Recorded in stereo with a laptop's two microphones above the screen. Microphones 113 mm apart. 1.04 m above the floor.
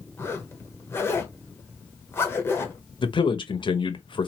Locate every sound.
0.2 s a zipper: 20° left (ahead or behind), 1.1 m
3.0 s a man speaking: 50° left (ahead or behind), 0.9 m